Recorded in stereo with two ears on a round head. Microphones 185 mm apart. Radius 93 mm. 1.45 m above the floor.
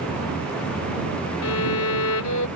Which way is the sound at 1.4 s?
85° left.